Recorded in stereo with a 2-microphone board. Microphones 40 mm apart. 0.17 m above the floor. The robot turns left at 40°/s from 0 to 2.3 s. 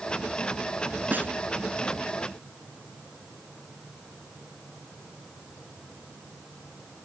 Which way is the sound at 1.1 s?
50° right (ahead or behind).